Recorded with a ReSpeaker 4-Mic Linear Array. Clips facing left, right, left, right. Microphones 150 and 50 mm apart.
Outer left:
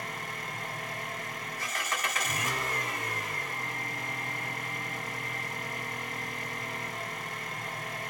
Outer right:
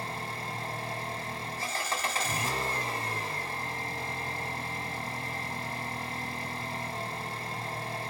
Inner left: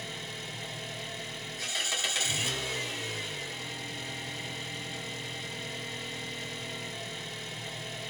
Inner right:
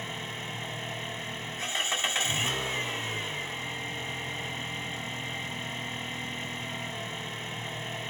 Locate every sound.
0.0 s an engine running: 30° right (ahead or behind), 1.8 m